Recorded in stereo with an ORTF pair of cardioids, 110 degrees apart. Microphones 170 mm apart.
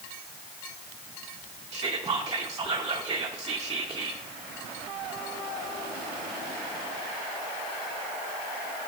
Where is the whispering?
25° right, 0.6 m.